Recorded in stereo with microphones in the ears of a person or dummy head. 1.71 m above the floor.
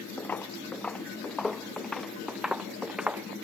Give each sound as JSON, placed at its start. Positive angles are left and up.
{"t": 0.2, "sound": "footsteps", "side_deg": 5}